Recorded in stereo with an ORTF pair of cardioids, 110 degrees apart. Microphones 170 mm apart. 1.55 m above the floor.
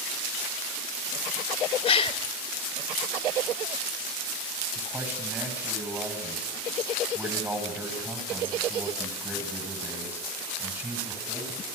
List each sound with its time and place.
1.9 s a gasp: 35° left, 2.5 m
4.8 s a man speaking: 15° right, 9 m